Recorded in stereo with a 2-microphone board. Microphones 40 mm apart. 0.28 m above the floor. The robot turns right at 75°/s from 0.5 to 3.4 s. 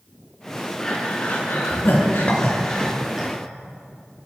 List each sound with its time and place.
0.8 s breathing: 15° left (ahead or behind), 4 m; by 3.3 s 20° right (ahead or behind), 4 m
2.3 s a clink: 35° left (ahead or behind), 2 m; by 2.4 s 40° left (ahead or behind), 2 m